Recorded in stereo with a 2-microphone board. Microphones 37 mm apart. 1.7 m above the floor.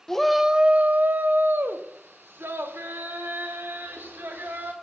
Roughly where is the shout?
Centre.